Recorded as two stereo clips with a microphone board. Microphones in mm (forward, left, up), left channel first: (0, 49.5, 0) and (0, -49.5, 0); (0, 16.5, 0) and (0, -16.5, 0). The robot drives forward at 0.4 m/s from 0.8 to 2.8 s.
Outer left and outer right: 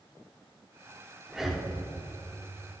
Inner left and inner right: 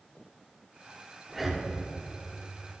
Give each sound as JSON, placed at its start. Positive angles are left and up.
{"t": 1.3, "sound": "breathing", "side_deg": -5, "distance_m": 1.3}